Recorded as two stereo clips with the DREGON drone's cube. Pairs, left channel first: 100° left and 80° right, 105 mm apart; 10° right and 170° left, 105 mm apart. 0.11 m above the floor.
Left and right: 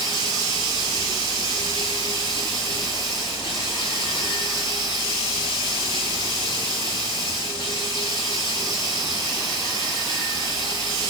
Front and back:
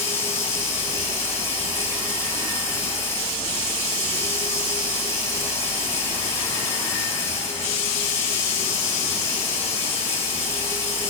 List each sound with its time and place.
0.0 s running water: 55° left, 4 m